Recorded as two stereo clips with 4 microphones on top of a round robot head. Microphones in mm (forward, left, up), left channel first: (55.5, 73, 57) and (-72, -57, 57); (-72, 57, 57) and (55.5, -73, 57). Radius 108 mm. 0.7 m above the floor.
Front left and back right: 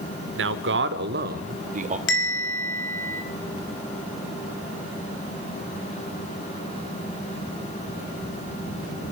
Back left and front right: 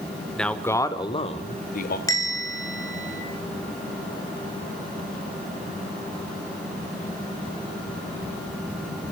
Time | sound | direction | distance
0.4 | a man speaking | 140° right | 1.9 m
2.1 | a bell | 60° left | 4.5 m